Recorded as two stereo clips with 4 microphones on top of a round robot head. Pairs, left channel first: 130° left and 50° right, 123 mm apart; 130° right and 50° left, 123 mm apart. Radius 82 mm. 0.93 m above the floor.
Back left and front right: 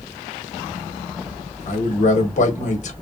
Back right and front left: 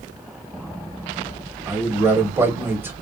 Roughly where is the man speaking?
Behind left.